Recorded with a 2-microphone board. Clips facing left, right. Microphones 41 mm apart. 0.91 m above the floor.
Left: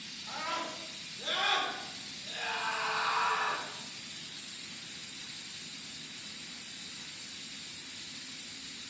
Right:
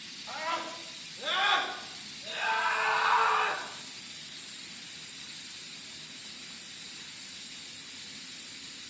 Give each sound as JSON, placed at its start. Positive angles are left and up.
{"t": 0.3, "sound": "a scream", "side_deg": -5, "distance_m": 3.5}